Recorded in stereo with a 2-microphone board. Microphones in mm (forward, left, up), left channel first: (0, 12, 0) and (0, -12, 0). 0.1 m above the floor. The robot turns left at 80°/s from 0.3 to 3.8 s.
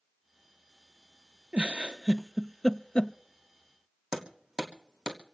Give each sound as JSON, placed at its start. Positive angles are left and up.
{"t": 1.5, "sound": "a giggle", "side_deg": -65, "distance_m": 0.6}
{"t": 4.1, "sound": "hammering", "side_deg": -30, "distance_m": 2.5}